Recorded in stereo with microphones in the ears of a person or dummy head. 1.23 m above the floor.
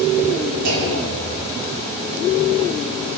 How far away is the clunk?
About 3.5 m.